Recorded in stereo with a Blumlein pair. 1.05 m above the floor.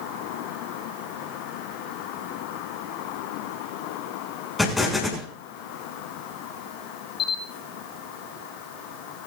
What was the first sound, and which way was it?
An explosion, 10° left.